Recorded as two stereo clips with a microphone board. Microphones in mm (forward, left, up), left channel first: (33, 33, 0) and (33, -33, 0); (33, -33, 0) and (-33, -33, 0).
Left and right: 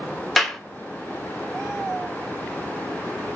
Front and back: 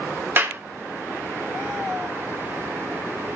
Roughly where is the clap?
Behind.